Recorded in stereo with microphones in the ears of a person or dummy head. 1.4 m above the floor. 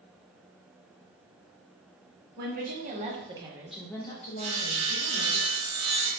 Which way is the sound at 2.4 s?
50° right (ahead or behind).